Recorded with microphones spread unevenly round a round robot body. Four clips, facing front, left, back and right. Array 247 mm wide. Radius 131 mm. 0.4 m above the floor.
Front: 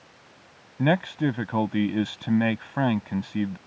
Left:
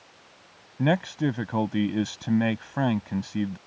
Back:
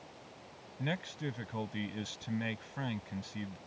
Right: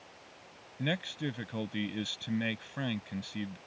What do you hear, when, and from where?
0.8 s a man speaking: 30° left